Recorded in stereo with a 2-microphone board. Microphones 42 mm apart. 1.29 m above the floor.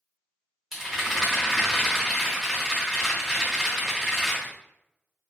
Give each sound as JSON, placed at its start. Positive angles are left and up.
{"t": 0.7, "sound": "a rattle", "side_deg": -10, "distance_m": 1.3}